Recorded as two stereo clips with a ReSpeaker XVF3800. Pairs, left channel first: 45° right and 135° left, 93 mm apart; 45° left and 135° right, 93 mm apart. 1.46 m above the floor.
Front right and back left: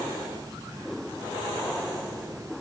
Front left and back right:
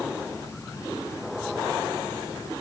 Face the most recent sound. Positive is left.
No sound to turn to.